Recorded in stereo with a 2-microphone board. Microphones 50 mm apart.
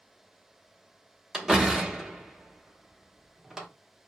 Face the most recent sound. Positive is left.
turn(degrees=-10)  # may be behind; listen again after turning